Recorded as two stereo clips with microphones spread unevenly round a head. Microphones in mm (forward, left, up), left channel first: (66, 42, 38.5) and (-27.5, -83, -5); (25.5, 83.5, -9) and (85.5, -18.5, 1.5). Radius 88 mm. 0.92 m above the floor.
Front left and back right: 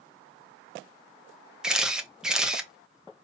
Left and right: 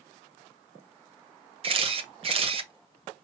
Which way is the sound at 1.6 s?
60° right.